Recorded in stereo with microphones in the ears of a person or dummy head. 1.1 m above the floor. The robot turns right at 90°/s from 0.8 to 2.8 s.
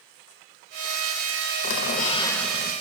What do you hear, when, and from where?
1.6 s a squeak: 105° left, 0.5 m; by 2.7 s 160° right, 0.5 m